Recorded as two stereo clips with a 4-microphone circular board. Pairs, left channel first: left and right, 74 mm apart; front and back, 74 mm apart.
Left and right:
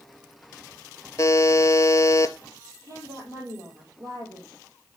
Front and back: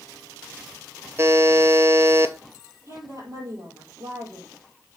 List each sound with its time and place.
1.2 s a buzzer: 130° left, 0.6 m
2.9 s a woman speaking: 135° right, 4 m